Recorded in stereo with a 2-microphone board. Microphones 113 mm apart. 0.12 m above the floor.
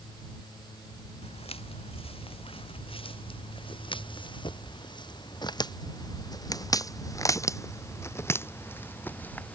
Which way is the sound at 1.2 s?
60° left (ahead or behind).